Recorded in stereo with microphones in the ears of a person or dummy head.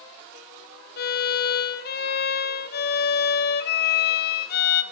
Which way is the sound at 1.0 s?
50° left (ahead or behind).